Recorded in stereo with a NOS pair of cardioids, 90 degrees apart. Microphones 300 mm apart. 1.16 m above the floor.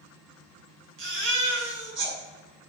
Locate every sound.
1.0 s a baby crying: 40° right, 4 m